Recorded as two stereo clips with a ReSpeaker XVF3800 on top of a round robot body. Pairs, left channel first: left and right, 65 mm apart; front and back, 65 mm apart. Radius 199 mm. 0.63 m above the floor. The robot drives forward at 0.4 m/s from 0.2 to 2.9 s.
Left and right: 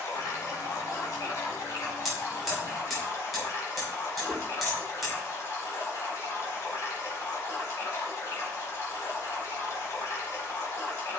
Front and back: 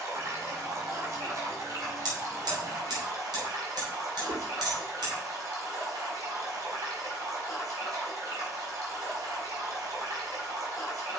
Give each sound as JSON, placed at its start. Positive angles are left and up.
{"t": 0.0, "sound": "running water", "azimuth_deg": 130, "distance_m": 4.0}
{"t": 2.0, "sound": "hammering", "azimuth_deg": 180, "distance_m": 4.5}
{"t": 4.3, "sound": "a whoosh", "azimuth_deg": 180, "distance_m": 2.0}